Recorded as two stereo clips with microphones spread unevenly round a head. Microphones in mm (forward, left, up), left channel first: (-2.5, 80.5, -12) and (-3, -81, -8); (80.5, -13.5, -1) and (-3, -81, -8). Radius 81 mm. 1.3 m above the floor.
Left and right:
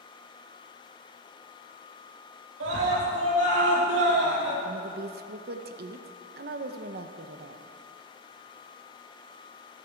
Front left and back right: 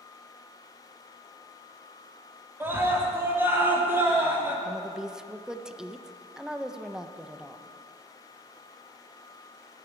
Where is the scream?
70° right, 3.5 m.